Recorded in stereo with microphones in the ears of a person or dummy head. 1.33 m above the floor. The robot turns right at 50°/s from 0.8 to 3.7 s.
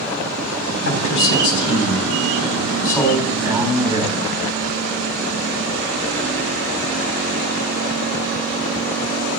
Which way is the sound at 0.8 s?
60° left.